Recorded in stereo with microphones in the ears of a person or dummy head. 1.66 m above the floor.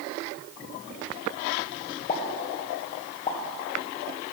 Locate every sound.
2.1 s a pop: 40° left (ahead or behind), 1.4 m